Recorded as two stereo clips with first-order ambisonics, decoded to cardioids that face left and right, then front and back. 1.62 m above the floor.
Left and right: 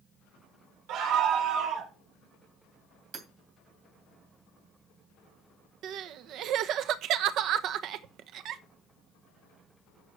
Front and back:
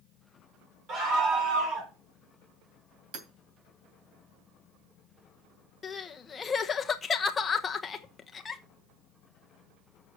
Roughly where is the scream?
Behind right.